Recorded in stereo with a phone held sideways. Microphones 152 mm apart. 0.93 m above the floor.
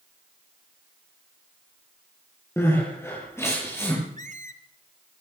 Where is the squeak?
55° right (ahead or behind), 1.2 m.